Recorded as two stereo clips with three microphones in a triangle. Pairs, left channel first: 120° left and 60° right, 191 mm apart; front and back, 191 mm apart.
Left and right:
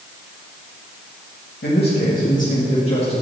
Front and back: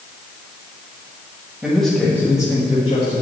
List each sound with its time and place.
1.6 s a man speaking: 95° left, 2 m; by 3.2 s 55° left, 2.5 m